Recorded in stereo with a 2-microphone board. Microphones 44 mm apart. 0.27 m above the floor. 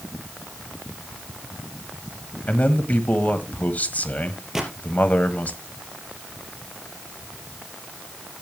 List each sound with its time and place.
2.5 s a man speaking: 35° left (ahead or behind), 1.4 m
4.5 s a gunshot: 5° right (ahead or behind), 3 m